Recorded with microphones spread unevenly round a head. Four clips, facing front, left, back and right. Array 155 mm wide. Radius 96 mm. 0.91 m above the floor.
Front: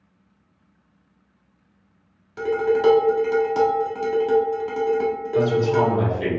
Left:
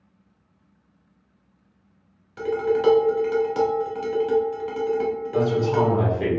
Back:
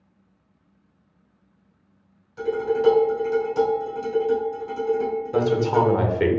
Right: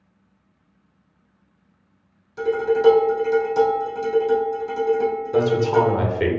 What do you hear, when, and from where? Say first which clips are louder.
2.4 s dishes clattering: right 3 dB, front 3 dB; 10° left, 1.6 m
5.3 s a man speaking: right 3 dB, even; 145° right, 1.1 m